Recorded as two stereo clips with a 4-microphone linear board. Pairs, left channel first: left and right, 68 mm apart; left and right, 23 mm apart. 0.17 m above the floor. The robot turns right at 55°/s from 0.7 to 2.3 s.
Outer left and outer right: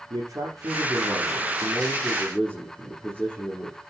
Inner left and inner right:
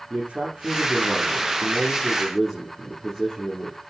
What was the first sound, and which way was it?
A man speaking, 70° right.